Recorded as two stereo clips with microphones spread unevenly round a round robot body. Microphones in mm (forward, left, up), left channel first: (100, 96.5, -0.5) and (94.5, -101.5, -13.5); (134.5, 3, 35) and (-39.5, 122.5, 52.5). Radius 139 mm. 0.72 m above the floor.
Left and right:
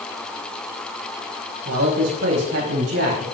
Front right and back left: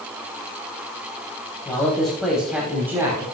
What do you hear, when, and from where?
1.6 s a man speaking: 120° right, 4.5 m; by 3.2 s 135° right, 5 m